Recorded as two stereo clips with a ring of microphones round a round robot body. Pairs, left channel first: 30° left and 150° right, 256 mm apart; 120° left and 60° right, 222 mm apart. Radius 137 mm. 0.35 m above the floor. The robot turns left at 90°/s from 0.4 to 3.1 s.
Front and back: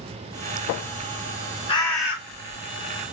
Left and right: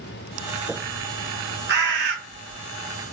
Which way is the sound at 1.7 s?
35° right.